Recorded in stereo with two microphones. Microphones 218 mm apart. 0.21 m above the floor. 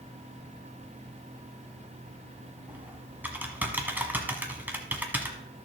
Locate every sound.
2.7 s typing on a keyboard: 10° right (ahead or behind), 1.2 m